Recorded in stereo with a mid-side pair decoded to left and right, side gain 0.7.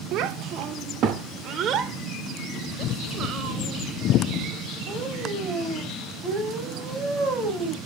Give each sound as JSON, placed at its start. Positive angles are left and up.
{"t": 0.1, "sound": "a child speaking", "azimuth_deg": -55, "distance_m": 2.0}